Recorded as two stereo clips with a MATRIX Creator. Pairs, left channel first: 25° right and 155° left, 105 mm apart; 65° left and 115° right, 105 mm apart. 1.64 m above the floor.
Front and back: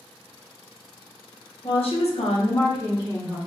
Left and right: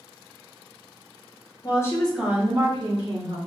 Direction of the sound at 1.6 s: 15° left.